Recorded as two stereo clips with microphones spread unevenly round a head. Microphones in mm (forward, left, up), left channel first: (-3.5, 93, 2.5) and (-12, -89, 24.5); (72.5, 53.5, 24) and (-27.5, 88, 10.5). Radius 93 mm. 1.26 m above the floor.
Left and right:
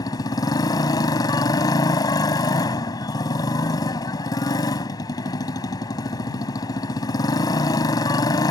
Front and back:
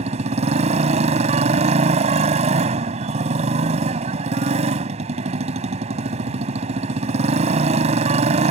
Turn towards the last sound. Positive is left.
turn(degrees=160)